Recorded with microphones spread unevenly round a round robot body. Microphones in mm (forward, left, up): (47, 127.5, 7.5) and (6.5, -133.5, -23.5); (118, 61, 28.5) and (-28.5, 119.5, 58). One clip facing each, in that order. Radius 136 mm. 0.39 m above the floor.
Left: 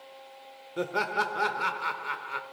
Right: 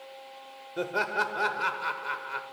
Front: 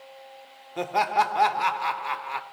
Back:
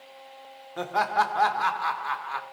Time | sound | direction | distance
0.8 | laughter | 15° right | 0.9 m